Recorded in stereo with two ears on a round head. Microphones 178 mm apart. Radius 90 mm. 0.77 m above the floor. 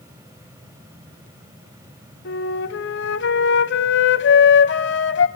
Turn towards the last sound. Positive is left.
turn(degrees=60)  # may be behind; listen again after turning